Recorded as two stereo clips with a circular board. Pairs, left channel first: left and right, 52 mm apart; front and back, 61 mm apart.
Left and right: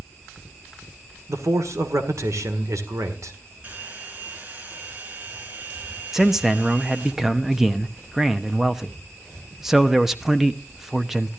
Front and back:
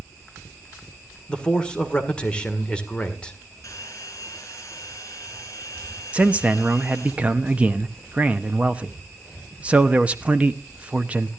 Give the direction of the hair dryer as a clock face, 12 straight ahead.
1 o'clock.